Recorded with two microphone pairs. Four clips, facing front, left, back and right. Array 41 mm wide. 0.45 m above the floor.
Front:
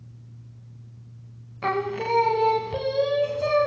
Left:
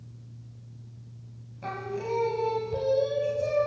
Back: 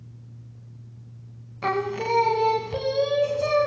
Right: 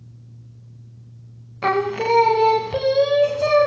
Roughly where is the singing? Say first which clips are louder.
Right 13 dB, even; right.